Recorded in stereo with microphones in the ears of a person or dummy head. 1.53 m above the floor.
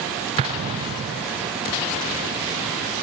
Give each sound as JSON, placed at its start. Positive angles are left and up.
{"t": 0.4, "sound": "an explosion", "side_deg": -35, "distance_m": 0.7}